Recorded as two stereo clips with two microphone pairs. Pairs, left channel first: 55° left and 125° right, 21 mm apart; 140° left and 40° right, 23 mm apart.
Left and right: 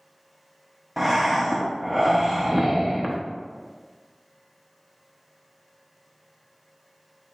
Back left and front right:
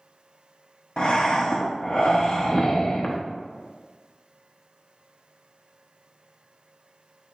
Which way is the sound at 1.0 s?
155° left.